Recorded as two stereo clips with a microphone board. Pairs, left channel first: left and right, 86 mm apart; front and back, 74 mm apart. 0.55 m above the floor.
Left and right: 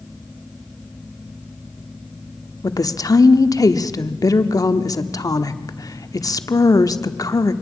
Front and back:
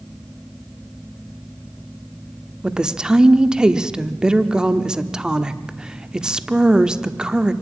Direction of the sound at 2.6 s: 105° left.